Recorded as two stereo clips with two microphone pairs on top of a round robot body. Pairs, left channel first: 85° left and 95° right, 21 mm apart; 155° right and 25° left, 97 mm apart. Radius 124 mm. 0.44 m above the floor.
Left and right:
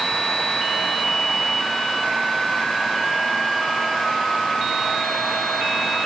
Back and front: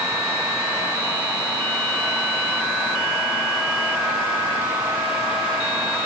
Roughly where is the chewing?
No chewing in this recording.